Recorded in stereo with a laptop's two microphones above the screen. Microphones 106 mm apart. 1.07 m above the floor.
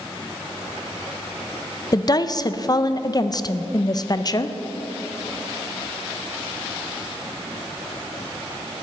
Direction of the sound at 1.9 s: 40° left (ahead or behind).